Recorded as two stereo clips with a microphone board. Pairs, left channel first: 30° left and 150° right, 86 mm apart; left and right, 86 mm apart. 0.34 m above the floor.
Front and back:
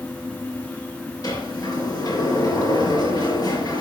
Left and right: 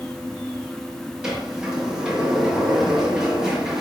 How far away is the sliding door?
About 5 m.